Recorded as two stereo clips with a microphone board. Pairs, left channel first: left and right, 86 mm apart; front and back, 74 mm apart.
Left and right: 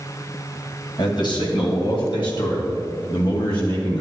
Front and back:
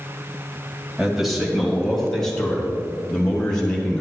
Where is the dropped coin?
No dropped coin in this recording.